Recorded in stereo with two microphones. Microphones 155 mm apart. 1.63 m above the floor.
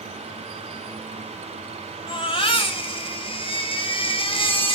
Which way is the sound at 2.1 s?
35° left (ahead or behind).